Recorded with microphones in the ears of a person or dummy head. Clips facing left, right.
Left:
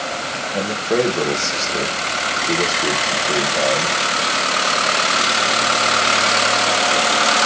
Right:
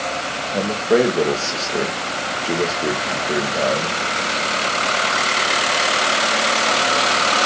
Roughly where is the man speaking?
Centre.